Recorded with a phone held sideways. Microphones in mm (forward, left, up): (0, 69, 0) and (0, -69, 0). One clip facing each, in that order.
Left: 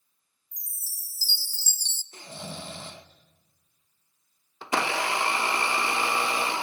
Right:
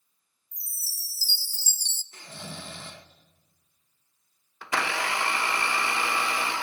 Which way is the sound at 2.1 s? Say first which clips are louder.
Left 2 dB; 25° left (ahead or behind).